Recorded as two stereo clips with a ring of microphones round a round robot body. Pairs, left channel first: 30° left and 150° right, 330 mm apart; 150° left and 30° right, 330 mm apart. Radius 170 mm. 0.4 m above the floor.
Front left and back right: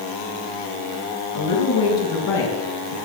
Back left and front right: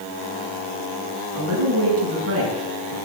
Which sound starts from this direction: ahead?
A woman speaking, at 1.3 s.